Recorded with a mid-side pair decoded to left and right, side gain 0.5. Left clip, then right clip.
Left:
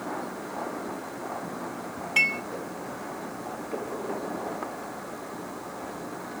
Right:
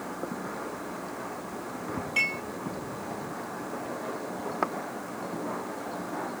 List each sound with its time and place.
2.2 s dishes clattering: 30° left, 8.5 m